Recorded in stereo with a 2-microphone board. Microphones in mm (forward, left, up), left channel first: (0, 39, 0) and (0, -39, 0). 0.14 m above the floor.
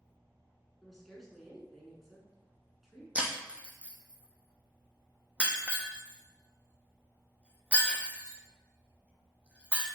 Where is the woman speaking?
Centre (ahead or behind), 1.3 m.